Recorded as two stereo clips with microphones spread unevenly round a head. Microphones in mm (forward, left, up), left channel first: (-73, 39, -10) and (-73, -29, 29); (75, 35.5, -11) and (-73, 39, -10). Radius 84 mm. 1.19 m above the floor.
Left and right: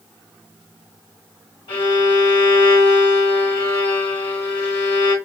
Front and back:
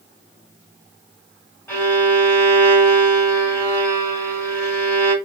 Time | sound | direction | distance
1.7 | a violin | 80° left | 2.5 m